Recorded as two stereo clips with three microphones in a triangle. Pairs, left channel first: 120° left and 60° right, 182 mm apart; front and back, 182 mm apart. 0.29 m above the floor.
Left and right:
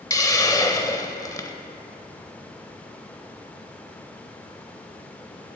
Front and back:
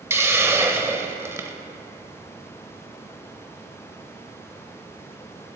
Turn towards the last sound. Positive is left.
turn(degrees=135)